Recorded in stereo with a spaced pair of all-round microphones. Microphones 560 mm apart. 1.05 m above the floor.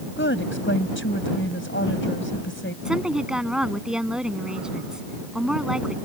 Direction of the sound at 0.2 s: 20° left (ahead or behind).